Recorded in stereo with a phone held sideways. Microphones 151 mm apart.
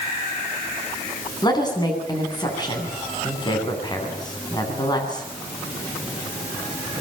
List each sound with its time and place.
1.4 s a woman speaking: 30° left (ahead or behind), 9.5 m